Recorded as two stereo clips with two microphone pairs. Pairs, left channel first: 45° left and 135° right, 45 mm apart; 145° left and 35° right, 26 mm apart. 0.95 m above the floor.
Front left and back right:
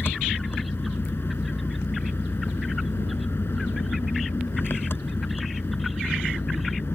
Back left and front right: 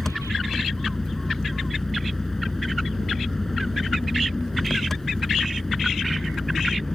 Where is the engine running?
75° left.